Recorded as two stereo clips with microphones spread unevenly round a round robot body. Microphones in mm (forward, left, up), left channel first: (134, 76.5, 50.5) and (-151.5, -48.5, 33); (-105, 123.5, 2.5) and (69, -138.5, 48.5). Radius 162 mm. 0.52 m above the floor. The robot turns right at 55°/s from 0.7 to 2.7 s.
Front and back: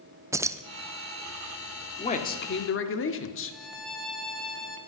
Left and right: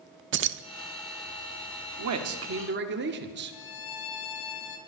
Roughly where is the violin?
Behind left.